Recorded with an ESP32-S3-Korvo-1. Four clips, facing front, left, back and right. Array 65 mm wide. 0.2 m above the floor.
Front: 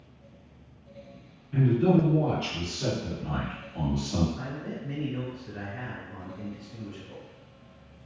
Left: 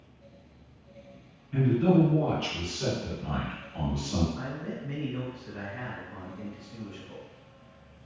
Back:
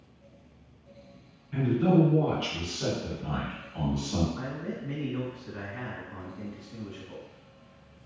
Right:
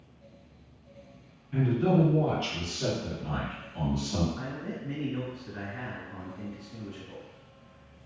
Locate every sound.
1.5 s a man speaking: 165° right, 1.6 m; by 4.3 s 100° left, 1.4 m
4.4 s a man speaking: straight behind, 2.0 m